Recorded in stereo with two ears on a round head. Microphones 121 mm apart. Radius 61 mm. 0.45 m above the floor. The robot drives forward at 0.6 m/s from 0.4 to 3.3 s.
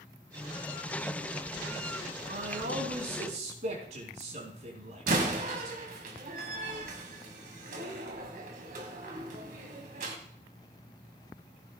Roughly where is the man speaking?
Right.